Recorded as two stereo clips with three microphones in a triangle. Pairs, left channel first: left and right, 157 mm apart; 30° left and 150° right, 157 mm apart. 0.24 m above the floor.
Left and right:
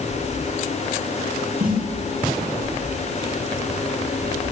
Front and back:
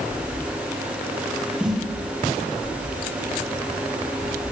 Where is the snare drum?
65° right, 4.5 m.